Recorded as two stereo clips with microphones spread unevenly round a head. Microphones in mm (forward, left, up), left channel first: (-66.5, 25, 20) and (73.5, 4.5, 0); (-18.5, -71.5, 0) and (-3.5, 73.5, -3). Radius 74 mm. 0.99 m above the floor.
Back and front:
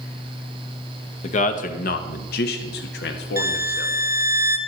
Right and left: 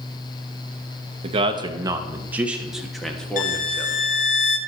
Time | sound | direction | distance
1.2 | a man speaking | 130° left | 0.9 m
3.4 | a violin | 70° right | 0.8 m